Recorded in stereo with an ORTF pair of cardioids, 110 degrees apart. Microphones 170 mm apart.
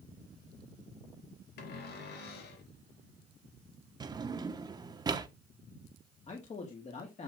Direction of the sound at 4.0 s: 25° right.